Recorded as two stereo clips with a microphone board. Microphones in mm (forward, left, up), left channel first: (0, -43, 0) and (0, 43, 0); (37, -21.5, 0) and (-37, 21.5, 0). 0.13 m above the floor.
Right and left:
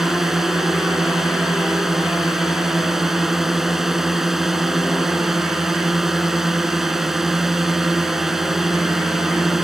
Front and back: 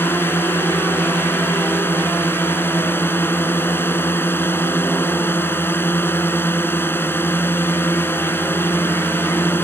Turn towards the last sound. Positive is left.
turn(degrees=5)